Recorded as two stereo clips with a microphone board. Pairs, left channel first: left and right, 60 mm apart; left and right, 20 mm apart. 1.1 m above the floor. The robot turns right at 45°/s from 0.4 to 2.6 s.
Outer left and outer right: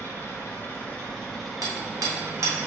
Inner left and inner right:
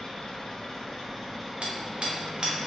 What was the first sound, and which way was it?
An engine running, 130° left.